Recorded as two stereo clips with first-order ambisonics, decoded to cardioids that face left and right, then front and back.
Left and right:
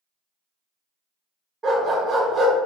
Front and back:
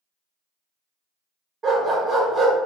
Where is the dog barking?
155° right, 1.5 m.